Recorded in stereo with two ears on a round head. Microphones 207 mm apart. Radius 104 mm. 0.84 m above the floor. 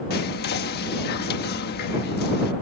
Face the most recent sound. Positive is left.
turn(degrees=45)  # may be behind; listen again after turning